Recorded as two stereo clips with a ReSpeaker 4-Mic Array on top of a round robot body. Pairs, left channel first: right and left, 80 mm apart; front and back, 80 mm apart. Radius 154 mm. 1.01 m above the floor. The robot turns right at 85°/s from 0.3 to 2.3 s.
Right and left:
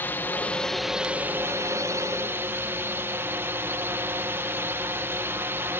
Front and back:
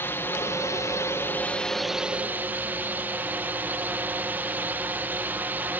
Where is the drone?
45° right; by 5.8 s 125° left.